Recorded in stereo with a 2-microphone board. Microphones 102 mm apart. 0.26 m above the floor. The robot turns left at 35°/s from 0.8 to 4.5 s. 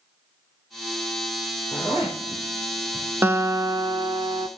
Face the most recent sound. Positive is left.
turn(degrees=-65)